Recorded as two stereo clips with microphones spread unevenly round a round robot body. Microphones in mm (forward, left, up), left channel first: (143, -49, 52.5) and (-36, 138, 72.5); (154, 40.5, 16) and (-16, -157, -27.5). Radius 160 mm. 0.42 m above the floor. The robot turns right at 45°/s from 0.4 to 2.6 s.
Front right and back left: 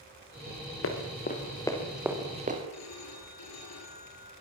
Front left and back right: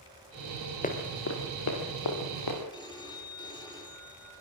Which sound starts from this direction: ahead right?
A phone ringing, at 2.7 s.